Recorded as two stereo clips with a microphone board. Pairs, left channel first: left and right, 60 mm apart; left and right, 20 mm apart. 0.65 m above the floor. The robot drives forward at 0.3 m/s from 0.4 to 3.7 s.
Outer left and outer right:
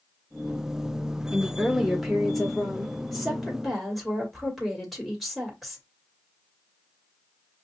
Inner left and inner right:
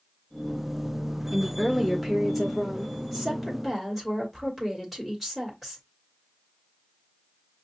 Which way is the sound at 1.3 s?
Centre (ahead or behind).